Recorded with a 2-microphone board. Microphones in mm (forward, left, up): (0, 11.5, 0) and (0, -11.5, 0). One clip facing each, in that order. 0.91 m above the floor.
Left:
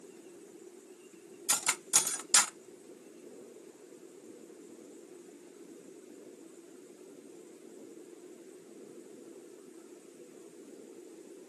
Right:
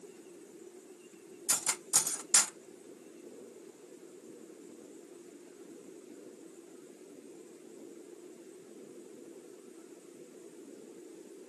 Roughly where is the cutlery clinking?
Left.